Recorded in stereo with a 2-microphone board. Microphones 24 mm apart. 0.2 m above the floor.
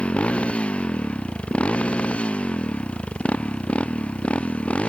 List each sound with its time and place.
0.0 s a motorcycle: 60° left (ahead or behind); by 4.9 s 65° left (ahead or behind)